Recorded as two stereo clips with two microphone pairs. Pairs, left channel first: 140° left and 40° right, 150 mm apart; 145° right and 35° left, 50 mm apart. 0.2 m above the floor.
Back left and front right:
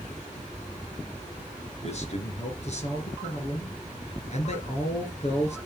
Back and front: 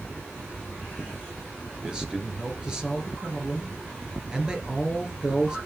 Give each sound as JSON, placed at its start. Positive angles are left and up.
{"t": 1.8, "sound": "a man speaking", "azimuth_deg": 105, "distance_m": 2.5}